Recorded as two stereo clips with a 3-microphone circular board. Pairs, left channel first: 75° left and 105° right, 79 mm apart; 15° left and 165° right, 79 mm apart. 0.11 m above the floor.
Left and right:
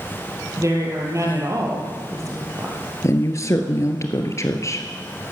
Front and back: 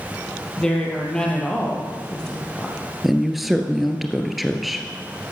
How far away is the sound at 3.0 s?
About 1.6 m.